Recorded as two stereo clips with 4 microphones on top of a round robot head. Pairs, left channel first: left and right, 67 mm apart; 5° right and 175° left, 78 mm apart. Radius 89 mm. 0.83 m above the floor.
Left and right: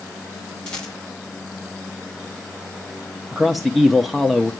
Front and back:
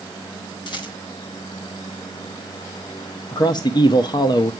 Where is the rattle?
15° left, 3 m.